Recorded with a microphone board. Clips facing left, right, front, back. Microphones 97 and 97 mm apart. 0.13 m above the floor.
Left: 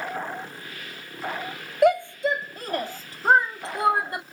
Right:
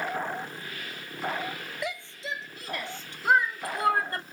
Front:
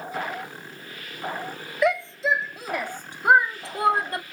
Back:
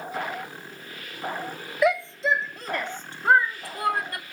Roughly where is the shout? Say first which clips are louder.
Left 18 dB, even; left.